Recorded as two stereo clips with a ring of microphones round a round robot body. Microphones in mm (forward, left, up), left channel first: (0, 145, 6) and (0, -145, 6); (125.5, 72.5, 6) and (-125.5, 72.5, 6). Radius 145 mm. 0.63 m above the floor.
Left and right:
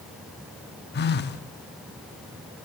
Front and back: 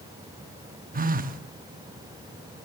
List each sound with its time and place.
0.9 s a phone buzzing: 135° left, 0.9 m